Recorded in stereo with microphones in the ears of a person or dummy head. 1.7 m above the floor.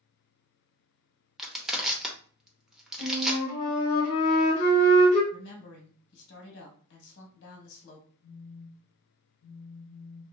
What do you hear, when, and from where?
1.4 s crushing: 5° right (ahead or behind), 0.6 m
3.0 s a flute: 50° left (ahead or behind), 1.3 m
5.3 s a woman speaking: 65° left (ahead or behind), 1.1 m
8.2 s a phone buzzing: 35° left (ahead or behind), 0.9 m